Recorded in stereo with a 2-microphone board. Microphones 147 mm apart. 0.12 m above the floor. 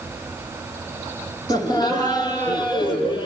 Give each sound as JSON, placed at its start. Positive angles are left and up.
{"t": 1.5, "sound": "laughter", "side_deg": 25, "distance_m": 4.5}